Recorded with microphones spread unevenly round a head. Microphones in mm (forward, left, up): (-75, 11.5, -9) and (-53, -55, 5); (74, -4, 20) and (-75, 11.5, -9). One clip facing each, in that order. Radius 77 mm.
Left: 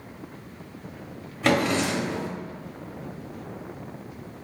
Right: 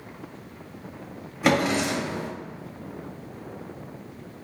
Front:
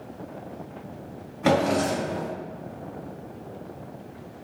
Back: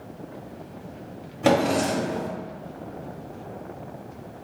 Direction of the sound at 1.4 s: 140° right.